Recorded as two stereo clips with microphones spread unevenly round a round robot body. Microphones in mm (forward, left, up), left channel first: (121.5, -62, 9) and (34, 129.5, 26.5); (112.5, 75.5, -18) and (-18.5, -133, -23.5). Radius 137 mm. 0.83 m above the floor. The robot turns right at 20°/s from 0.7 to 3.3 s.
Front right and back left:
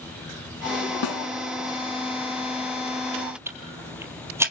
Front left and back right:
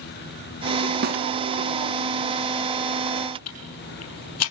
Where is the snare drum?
75° right, 1.5 m; by 1.3 s 70° right, 1.5 m.